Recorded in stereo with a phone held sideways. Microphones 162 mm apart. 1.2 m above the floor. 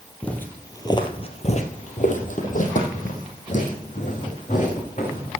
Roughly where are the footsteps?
Centre.